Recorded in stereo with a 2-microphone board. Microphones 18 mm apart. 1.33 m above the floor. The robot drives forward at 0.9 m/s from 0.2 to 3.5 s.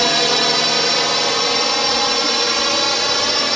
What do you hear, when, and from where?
0.0 s a drone: 5° left (ahead or behind)